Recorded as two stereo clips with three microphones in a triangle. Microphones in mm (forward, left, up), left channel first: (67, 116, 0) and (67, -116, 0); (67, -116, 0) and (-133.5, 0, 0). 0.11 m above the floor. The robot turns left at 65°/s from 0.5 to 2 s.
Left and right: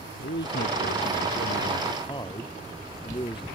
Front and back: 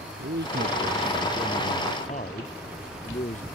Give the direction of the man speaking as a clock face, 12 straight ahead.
8 o'clock.